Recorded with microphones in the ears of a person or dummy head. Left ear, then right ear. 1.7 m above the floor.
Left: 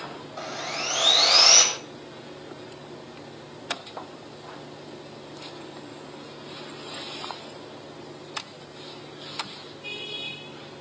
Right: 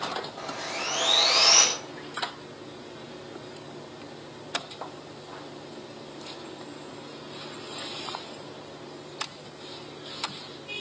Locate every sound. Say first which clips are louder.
0.4 s sawing: left 2 dB; 80° left, 7 m